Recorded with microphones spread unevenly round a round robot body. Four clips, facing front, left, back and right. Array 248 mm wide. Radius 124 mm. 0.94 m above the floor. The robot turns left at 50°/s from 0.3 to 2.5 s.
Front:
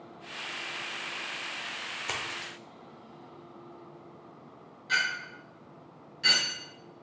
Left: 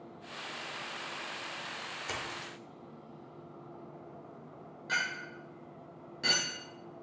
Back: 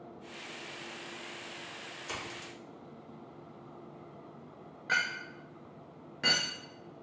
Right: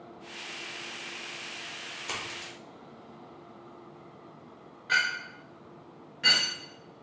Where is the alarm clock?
I don't hear an alarm clock.